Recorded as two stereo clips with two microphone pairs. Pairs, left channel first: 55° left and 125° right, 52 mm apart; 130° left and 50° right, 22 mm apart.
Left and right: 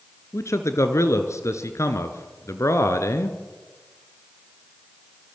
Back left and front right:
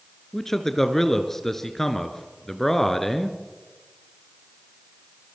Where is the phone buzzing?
I don't hear a phone buzzing.